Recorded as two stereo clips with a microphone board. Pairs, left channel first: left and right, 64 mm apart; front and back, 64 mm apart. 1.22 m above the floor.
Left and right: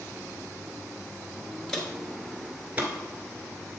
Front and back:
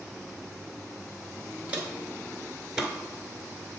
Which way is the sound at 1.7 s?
155° left.